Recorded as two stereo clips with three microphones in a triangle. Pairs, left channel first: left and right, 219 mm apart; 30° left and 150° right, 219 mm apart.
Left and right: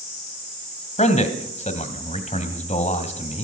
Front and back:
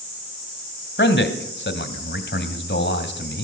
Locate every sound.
1.0 s a man speaking: 40° left, 1.7 m